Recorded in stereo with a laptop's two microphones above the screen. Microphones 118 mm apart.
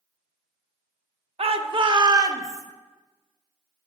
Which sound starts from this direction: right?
A shout, at 1.4 s.